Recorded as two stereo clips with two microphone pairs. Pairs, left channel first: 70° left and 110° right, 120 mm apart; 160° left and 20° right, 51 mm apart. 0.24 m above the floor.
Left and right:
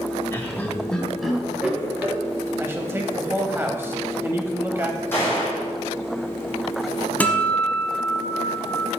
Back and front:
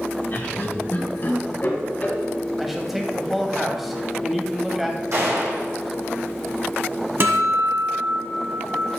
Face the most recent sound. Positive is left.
turn(degrees=0)